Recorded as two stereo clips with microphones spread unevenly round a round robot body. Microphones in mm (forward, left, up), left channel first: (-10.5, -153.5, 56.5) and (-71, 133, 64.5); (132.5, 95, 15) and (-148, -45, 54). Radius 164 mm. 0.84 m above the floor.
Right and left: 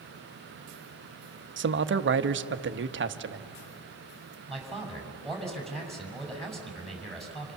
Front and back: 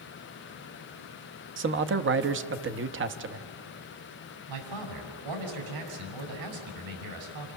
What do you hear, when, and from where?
1.6 s a man speaking: 150° left, 1.0 m
4.5 s a man speaking: 165° right, 5 m